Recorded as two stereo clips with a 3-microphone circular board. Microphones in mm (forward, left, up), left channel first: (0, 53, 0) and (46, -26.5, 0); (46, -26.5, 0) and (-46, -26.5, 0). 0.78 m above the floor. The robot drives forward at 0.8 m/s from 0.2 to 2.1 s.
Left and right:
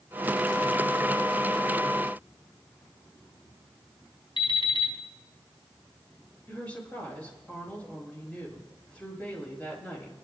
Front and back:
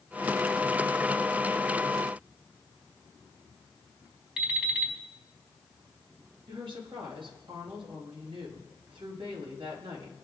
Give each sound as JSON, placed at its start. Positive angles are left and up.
{"t": 4.4, "sound": "an alarm clock", "azimuth_deg": 100, "distance_m": 4.0}
{"t": 6.5, "sound": "a woman speaking", "azimuth_deg": -165, "distance_m": 5.0}